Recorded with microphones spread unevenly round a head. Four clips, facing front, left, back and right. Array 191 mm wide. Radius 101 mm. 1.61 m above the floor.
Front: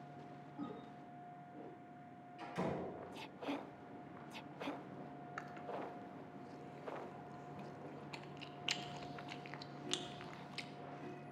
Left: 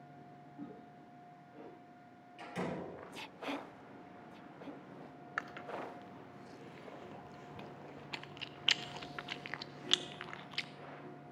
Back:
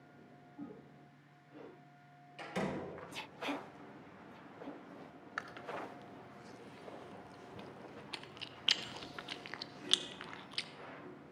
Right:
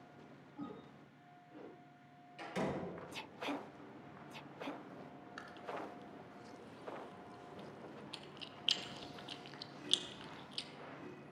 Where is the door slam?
165° right, 5.5 m.